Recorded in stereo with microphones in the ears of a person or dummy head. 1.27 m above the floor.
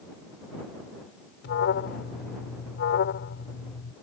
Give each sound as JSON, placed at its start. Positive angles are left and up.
{"t": 1.4, "sound": "an alarm", "side_deg": 70}